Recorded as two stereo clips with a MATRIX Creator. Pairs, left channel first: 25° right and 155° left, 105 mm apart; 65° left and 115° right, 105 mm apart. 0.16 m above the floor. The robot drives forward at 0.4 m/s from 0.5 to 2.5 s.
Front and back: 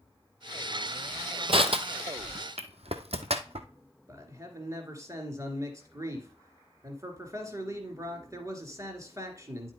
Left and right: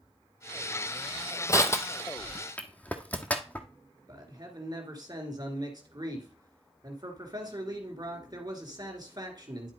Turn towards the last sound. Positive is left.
turn(degrees=-150)